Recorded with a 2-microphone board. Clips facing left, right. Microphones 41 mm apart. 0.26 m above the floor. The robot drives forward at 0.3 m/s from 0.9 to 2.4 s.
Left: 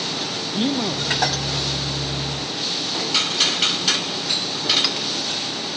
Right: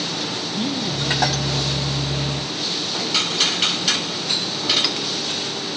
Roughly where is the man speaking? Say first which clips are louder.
Left 4 dB; left.